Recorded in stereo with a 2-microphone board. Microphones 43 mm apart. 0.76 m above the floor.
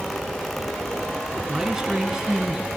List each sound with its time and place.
1.5 s a man speaking: 10° right (ahead or behind), 6.5 m